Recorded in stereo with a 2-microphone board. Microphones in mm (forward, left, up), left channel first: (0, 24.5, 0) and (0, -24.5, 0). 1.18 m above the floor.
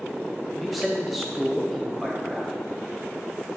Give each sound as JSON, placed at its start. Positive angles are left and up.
{"t": 0.6, "sound": "a man speaking", "side_deg": 0, "distance_m": 0.5}